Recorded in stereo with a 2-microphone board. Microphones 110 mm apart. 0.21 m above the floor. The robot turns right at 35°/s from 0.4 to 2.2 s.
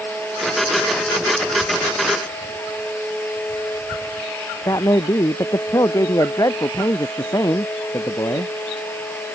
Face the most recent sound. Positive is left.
turn(degrees=30)  # may be behind; listen again after turning